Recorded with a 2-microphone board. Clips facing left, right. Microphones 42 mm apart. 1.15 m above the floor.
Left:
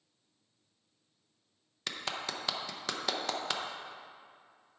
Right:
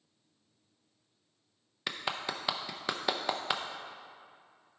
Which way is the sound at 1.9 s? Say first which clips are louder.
Right 2 dB; 15° right (ahead or behind).